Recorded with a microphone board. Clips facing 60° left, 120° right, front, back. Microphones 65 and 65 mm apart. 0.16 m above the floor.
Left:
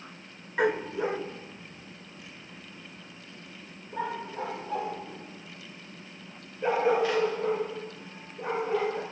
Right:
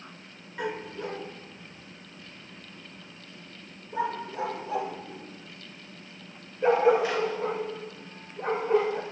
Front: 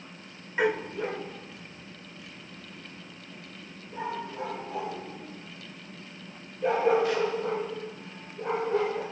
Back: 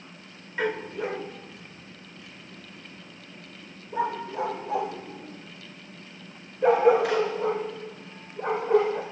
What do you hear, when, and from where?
0.6 s a dog barking: 75° left, 0.5 m; by 9.0 s 170° left, 4.5 m